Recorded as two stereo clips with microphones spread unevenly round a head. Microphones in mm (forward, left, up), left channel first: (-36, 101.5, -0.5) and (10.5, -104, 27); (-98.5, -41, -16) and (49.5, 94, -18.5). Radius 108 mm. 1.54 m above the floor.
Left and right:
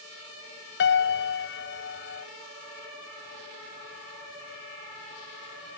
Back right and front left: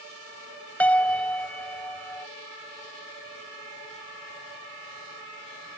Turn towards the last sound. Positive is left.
turn(degrees=140)